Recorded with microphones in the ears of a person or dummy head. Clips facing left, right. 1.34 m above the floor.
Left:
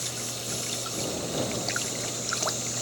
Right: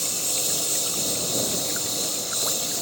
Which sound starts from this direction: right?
A lawn mower, at 0.0 s.